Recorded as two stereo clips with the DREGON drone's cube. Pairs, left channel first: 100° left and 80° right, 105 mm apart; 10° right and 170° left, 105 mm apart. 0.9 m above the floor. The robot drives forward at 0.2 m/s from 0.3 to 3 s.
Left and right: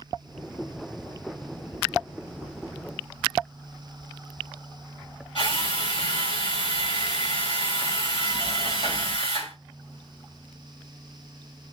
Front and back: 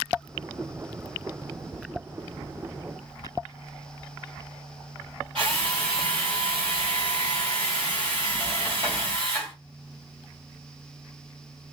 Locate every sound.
5.3 s a drill: 130° left, 3.5 m